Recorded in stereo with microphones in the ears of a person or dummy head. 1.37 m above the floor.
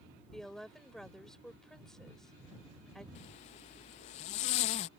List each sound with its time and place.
0.3 s a woman speaking: centre (ahead or behind)
3.1 s a zipper: 35° left (ahead or behind)